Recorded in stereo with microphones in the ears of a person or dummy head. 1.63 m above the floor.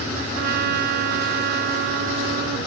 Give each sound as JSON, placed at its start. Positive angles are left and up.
{"t": 0.3, "sound": "a trumpet", "side_deg": -60}